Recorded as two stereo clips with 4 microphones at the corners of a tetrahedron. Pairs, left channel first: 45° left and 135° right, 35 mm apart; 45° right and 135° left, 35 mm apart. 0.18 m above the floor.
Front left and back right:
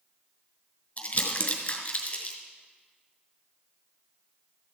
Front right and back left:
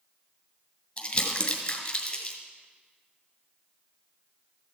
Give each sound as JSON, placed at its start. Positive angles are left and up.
{"t": 1.0, "sound": "crumpling", "azimuth_deg": -5, "distance_m": 2.0}